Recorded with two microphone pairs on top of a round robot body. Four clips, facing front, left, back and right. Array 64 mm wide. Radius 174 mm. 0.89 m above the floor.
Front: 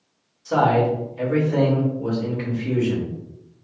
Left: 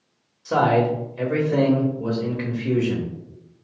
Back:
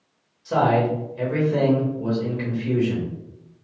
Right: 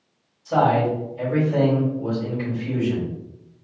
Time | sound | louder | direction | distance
0.5 | a man speaking | even, front 1 dB | 95° left | 1.6 m